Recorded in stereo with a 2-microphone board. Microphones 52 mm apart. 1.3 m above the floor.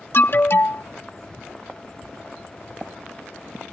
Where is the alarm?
50° left (ahead or behind).